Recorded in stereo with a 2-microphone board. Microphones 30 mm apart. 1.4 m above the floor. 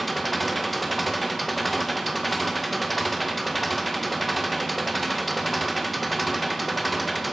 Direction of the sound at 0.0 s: Centre (ahead or behind).